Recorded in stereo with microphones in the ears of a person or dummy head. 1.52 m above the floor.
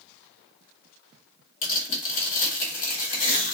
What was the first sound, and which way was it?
Tearing paper, 40° left (ahead or behind).